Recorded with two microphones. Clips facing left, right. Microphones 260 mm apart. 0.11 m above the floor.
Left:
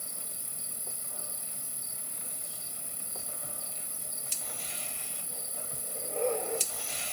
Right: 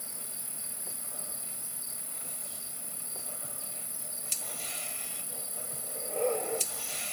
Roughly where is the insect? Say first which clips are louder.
Even; right.